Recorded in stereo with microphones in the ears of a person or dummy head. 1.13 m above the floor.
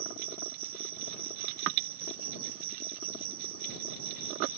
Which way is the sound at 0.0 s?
30° right (ahead or behind).